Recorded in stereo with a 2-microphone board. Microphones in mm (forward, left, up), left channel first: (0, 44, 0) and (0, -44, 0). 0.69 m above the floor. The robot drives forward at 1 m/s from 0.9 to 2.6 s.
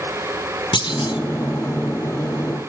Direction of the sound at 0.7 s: 70° left (ahead or behind).